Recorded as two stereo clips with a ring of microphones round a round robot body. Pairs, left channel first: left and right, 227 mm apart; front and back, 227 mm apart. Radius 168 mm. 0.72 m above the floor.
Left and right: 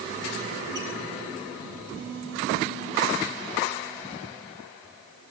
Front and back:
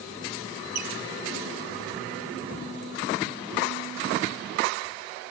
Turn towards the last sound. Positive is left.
turn(degrees=-170)